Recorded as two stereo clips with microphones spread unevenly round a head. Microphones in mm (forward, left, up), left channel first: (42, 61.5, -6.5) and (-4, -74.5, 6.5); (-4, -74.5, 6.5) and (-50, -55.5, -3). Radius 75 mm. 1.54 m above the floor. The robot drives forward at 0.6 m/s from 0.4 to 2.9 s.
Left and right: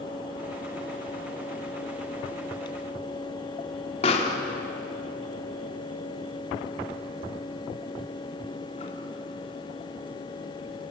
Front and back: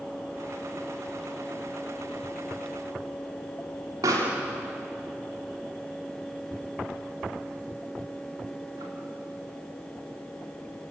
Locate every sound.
4.0 s a pop: 125° left, 3 m